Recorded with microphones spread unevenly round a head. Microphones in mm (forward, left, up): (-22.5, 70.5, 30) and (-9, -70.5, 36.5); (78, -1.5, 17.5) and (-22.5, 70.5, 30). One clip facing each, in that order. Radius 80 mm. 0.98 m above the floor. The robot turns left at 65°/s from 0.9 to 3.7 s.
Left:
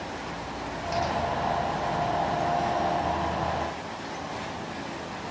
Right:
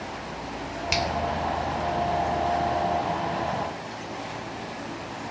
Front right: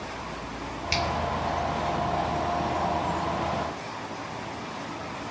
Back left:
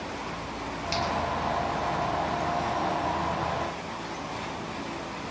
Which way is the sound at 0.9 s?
80° right.